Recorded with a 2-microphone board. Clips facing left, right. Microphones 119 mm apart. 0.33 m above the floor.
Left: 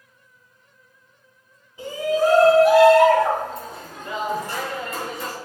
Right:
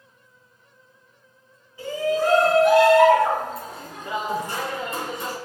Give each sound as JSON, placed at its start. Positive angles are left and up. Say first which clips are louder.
{"t": 1.8, "sound": "a shout", "louder": "left 2 dB", "side_deg": 20, "distance_m": 3.0}